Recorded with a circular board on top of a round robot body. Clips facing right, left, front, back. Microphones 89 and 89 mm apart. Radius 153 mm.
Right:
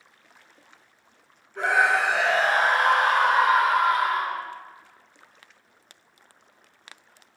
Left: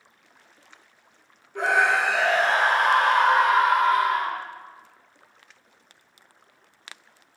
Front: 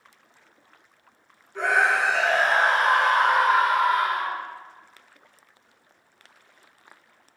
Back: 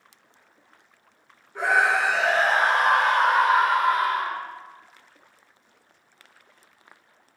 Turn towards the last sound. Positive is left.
turn(degrees=85)